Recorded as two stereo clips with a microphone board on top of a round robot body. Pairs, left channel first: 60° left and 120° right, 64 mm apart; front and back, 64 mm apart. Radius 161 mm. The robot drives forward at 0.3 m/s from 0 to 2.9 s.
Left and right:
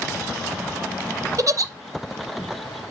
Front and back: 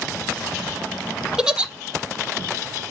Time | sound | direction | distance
1.4 | a giggle | 100° right | 1.0 m